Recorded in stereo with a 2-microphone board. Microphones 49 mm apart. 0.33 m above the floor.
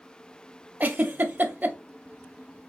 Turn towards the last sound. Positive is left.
turn(degrees=-40)  # may be behind; listen again after turning